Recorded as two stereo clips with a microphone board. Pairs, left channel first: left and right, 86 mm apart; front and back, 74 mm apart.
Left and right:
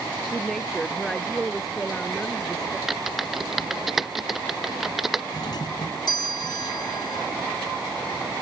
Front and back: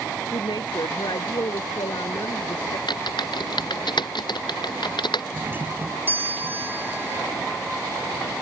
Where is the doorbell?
120° left.